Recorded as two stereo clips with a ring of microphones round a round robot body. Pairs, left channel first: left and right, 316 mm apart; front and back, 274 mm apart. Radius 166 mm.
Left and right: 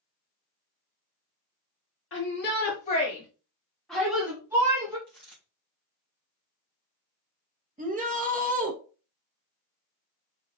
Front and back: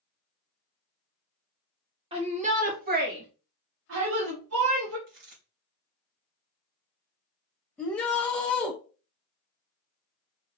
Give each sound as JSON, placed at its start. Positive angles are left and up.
{"t": 2.1, "sound": "a shout", "azimuth_deg": 115, "distance_m": 1.4}
{"t": 5.1, "sound": "a dropped coin", "azimuth_deg": 175, "distance_m": 3.5}
{"t": 7.8, "sound": "a shout", "azimuth_deg": -80, "distance_m": 1.0}